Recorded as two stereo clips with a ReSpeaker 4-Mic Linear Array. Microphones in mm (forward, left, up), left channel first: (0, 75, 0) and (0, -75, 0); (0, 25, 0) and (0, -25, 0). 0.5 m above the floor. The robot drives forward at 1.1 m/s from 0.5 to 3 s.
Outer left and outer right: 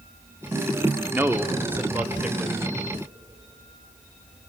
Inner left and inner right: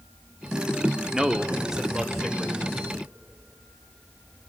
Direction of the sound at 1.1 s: 15° right (ahead or behind).